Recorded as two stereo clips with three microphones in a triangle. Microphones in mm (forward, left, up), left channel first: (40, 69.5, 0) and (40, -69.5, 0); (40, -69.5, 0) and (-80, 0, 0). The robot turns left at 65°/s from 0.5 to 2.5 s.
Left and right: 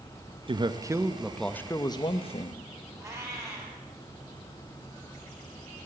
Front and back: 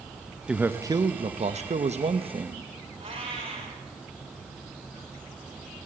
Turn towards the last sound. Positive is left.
turn(degrees=-160)